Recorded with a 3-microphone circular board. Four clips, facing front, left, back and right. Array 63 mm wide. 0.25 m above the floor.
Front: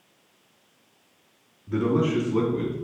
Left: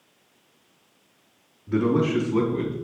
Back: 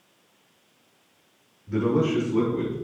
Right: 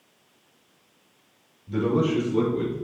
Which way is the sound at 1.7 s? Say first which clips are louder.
Left 1 dB, even; 70° left.